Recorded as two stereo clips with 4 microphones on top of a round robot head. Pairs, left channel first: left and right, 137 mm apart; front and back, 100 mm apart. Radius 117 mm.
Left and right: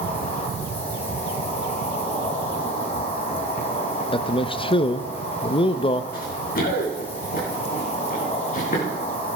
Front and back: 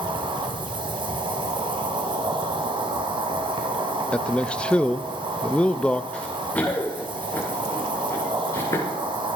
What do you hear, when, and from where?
0.0 s an insect: 145° left, 1.8 m
4.1 s a man speaking: 75° left, 0.6 m
6.1 s running footsteps: 80° left, 4 m; by 8.9 s 60° left, 4 m